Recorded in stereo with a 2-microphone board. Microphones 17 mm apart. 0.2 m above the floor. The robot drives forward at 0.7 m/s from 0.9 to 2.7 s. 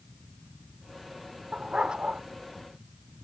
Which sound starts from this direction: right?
A dog barking, at 1.5 s.